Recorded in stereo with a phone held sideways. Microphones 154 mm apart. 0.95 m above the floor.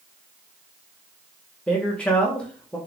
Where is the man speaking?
10° left (ahead or behind), 0.9 m.